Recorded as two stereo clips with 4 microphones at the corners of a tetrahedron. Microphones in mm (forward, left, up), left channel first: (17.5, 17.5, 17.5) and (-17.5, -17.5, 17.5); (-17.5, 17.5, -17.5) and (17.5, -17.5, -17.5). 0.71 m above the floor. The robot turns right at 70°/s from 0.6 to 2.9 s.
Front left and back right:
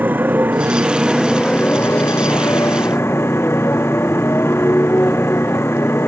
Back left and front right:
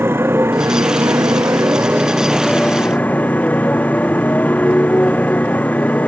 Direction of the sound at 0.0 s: 85° right.